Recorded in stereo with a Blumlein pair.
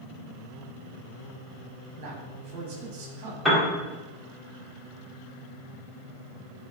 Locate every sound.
2.0 s a man speaking: 40° right, 2.5 m
3.5 s a piano: straight ahead, 2.0 m